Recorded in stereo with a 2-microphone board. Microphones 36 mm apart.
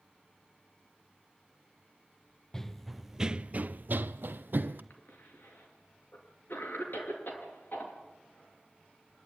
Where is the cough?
75° left (ahead or behind), 5.5 m.